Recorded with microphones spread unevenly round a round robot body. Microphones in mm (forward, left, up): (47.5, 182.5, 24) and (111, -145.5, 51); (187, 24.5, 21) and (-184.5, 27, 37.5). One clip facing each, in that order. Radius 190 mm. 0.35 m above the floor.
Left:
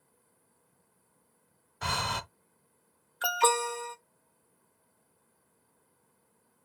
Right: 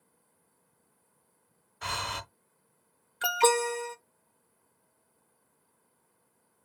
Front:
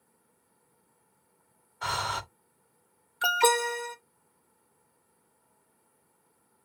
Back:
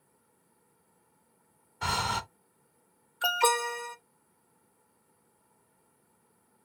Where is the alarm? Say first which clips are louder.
Right 4 dB, front 3 dB; 35° right, 0.7 m.